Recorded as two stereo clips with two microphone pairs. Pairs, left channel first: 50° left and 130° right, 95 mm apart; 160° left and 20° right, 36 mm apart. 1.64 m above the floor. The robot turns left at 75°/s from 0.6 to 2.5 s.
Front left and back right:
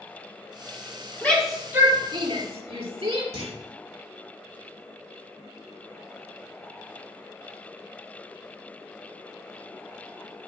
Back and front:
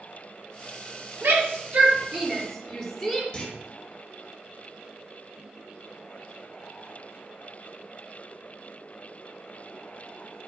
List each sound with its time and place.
1.2 s a shout: 20° right, 4 m; by 3.2 s 115° right, 4 m
3.3 s a clunk: 130° right, 3.5 m